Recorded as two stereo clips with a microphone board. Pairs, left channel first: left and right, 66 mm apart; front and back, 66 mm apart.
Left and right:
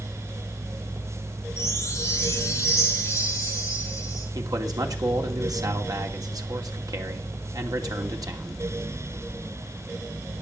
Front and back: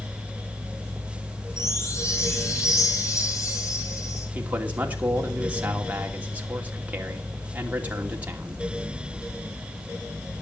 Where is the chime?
35° left, 4 m.